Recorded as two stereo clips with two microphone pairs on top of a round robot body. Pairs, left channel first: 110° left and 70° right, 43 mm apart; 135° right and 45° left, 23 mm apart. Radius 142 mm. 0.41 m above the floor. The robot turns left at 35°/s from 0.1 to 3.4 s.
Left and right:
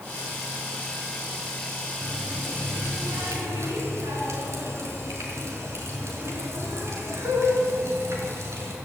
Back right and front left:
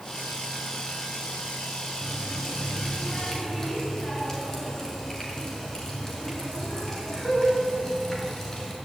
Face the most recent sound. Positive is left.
turn(degrees=-70)